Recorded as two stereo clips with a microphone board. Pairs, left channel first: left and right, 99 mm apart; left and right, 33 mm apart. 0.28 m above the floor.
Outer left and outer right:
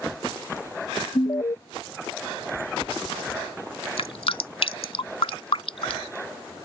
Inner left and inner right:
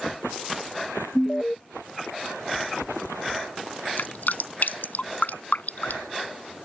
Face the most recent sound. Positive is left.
turn(degrees=75)  # may be behind; listen again after turning